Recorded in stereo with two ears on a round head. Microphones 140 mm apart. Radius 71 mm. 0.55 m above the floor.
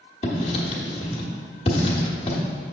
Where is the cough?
I don't hear a cough.